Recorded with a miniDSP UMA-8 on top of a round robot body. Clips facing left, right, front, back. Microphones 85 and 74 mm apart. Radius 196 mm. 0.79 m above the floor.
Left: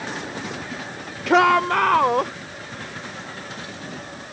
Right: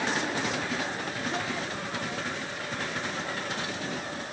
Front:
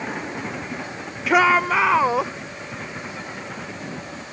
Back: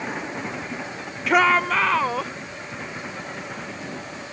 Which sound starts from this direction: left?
A shout, at 1.3 s.